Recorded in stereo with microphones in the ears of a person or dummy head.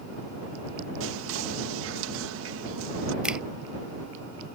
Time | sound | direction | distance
1.0 | whispering | 85° right | ?
3.2 | a finger snap | 5° right (ahead or behind) | ?